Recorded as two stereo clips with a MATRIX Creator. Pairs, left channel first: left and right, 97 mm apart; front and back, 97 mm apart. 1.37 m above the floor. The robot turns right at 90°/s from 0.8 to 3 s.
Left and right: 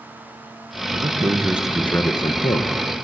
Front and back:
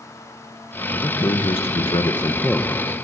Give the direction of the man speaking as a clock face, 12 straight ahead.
2 o'clock.